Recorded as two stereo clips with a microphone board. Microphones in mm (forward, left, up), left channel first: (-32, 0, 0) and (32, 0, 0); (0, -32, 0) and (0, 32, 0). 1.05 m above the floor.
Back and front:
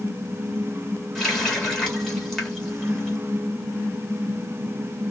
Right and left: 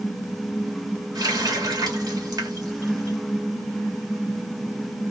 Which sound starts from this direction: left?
A running tap, at 1.1 s.